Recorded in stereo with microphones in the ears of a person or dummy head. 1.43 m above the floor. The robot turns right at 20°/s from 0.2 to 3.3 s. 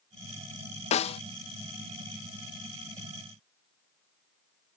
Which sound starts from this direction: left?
A snare drum, at 0.9 s.